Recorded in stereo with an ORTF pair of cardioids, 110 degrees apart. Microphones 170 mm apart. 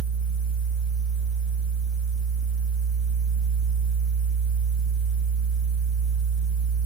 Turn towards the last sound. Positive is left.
turn(degrees=50)